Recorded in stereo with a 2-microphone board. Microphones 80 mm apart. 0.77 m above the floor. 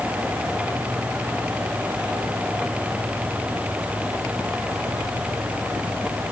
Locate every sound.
Only background noise.